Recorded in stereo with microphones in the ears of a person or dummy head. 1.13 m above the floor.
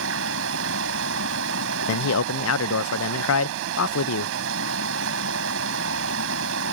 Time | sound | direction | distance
0.0 | running water | 70° right (ahead or behind) | ?
1.9 | a man speaking | 70° left (ahead or behind) | ?